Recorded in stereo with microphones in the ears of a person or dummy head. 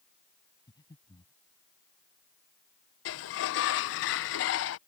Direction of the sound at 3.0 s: 65° left (ahead or behind).